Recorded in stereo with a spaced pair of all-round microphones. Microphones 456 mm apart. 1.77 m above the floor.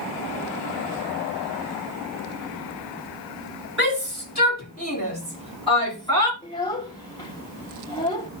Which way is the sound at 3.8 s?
25° left (ahead or behind).